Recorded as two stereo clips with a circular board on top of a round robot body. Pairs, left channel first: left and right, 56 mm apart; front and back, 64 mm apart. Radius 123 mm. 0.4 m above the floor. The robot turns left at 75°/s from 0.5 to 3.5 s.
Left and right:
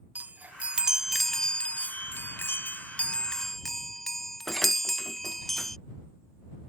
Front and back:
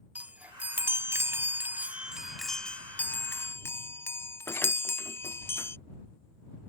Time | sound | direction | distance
0.1 | a chime | 130° right | ?